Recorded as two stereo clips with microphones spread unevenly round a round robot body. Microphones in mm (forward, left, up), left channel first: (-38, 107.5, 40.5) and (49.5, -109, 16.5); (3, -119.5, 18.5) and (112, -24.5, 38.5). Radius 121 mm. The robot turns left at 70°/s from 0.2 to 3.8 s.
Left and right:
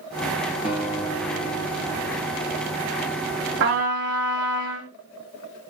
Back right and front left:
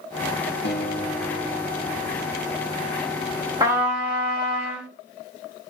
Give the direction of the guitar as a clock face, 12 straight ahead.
5 o'clock.